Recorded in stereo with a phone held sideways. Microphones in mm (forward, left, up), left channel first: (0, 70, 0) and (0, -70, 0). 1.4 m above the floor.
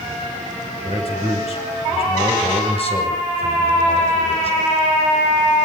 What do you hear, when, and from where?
0.8 s a man speaking: 45° left (ahead or behind), 9 m